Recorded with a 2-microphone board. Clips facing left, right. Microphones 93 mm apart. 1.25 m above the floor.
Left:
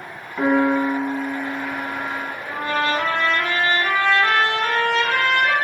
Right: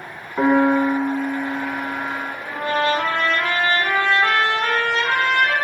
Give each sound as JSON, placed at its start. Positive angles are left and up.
{"t": 0.4, "sound": "a piano", "side_deg": -30, "distance_m": 0.6}
{"t": 2.5, "sound": "a trumpet", "side_deg": -20, "distance_m": 1.2}